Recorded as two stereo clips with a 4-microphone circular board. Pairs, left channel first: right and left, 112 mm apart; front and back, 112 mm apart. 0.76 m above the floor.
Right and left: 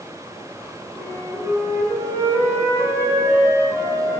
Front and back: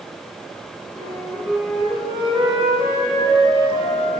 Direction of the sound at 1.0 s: 160° left.